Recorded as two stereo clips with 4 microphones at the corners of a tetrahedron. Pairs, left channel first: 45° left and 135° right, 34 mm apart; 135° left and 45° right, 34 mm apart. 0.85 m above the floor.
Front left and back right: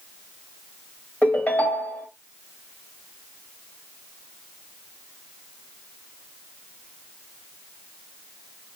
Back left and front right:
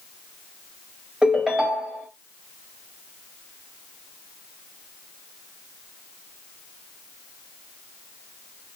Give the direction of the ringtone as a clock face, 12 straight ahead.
11 o'clock.